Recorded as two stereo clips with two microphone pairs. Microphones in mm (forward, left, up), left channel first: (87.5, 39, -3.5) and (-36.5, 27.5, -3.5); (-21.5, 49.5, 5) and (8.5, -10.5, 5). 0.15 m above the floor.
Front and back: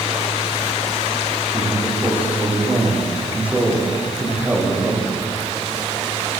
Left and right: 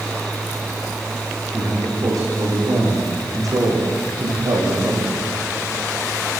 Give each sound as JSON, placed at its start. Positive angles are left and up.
{"t": 1.5, "sound": "a man speaking", "azimuth_deg": -100, "distance_m": 9.0}